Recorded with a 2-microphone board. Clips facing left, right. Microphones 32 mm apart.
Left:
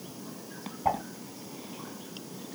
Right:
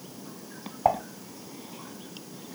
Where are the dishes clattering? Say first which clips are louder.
Right 5 dB; 60° right (ahead or behind), 5 m.